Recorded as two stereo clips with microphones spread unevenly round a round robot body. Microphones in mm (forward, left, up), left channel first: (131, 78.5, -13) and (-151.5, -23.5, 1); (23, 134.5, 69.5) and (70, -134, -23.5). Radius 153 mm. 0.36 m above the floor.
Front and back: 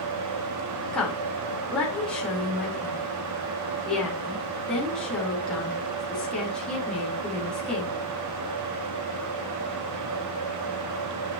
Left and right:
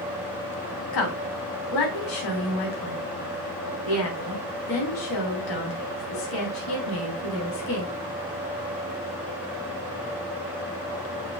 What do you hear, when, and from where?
0.9 s a woman speaking: 105° left, 4 m